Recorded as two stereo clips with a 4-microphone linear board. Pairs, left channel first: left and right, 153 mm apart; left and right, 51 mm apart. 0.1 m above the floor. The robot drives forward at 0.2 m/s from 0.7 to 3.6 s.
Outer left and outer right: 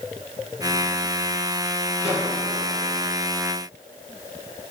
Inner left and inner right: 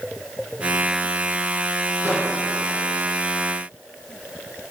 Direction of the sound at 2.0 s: 40° right (ahead or behind).